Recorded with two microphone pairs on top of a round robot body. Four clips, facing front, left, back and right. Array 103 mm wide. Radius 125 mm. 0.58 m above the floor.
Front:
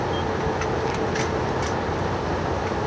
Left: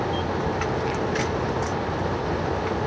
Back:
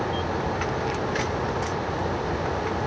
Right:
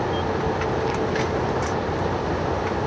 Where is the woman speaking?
I don't hear a woman speaking.